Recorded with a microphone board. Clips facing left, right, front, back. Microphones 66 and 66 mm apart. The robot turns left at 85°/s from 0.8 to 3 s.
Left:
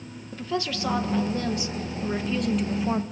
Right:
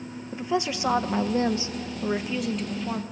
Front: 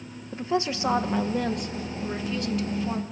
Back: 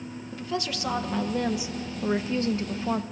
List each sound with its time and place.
0.3 s a woman speaking: 35° right, 0.7 m; by 3.0 s 140° left, 0.7 m